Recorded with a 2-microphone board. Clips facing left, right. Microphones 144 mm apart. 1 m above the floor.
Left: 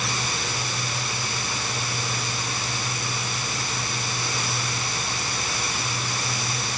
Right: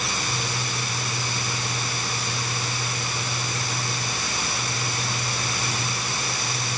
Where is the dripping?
No dripping in this recording.